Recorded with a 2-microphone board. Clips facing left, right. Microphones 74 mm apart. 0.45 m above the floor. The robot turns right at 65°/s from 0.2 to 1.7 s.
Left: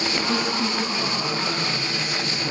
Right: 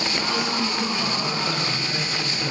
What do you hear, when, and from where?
0.3 s a woman speaking: 125° left, 2 m; by 2.5 s 145° right, 2 m